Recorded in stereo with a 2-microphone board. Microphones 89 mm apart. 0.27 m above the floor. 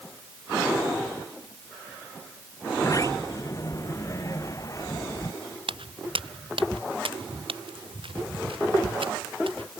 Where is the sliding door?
35° left (ahead or behind).